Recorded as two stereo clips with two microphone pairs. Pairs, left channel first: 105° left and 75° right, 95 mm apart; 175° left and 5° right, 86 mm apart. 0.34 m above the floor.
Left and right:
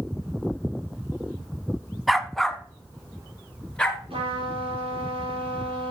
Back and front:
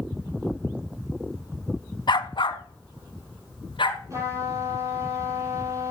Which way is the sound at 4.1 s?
55° right.